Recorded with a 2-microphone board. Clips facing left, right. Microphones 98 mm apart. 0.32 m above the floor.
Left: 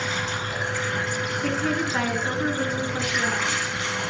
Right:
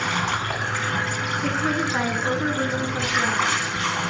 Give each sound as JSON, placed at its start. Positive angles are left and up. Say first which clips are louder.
{"t": 0.0, "sound": "running water", "louder": "right 4 dB", "side_deg": -65, "distance_m": 2.5}
{"t": 1.4, "sound": "a woman speaking", "louder": "right 1 dB", "side_deg": -10, "distance_m": 3.0}